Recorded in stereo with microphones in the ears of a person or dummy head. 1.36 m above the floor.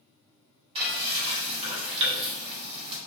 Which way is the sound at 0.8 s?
30° right (ahead or behind).